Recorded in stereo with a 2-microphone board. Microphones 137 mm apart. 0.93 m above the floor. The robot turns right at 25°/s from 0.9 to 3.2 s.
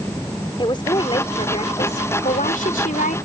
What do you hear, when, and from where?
0.6 s a woman speaking: 35° left; by 3.2 s 90° left